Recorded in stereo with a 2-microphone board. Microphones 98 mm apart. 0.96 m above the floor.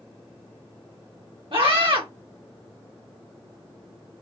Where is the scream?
60° right (ahead or behind), 2 m.